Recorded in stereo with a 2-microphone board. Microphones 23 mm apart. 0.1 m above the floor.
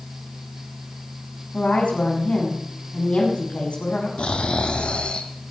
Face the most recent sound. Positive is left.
turn(degrees=55)  # may be behind; listen again after turning